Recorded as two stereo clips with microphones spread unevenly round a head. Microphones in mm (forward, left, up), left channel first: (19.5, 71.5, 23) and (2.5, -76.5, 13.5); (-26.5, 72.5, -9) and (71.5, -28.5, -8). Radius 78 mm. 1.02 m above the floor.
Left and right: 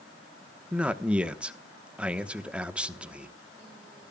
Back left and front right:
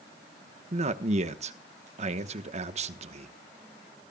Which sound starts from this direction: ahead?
A man speaking, at 0.7 s.